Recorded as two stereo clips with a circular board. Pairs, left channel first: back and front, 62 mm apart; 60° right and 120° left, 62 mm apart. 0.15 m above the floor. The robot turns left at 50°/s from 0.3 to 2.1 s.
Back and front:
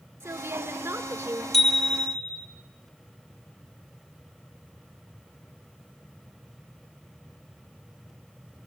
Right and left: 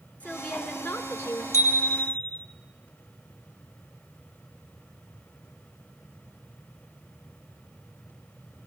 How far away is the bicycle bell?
About 3 m.